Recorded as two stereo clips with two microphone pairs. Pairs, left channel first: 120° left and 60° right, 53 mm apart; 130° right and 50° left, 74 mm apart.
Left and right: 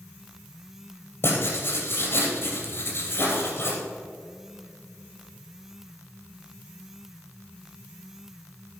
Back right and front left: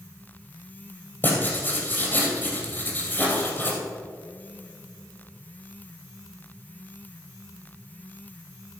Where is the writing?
165° left, 3 m.